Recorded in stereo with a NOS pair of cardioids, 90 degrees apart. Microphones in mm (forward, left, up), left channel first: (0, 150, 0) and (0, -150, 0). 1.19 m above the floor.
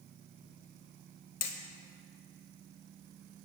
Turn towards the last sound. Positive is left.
turn(degrees=55)